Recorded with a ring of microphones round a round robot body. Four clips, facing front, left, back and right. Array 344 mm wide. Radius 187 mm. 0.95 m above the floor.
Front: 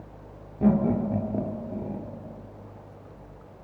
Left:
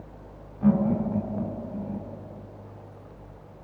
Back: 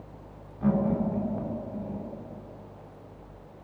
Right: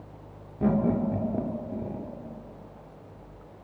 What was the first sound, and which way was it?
Laughter, 45° right.